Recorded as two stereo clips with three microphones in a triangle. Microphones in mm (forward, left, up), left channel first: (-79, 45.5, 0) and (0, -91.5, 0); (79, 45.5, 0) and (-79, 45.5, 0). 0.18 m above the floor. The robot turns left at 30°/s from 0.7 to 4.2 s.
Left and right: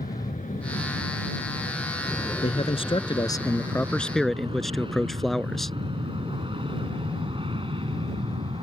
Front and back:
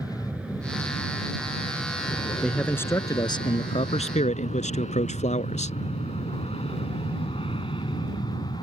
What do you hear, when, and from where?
0.0 s an aircraft: 100° left; by 8.6 s 35° right
2.4 s a man speaking: 85° left; by 5.8 s 30° left